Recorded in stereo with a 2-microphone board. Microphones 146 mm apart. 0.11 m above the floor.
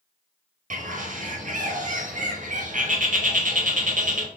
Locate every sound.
0.7 s a bird: 70° right (ahead or behind), 0.7 m